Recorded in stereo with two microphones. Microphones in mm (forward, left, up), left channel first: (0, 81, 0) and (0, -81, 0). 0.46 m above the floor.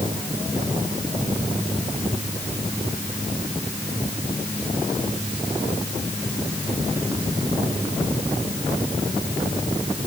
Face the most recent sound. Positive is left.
No sound to turn to.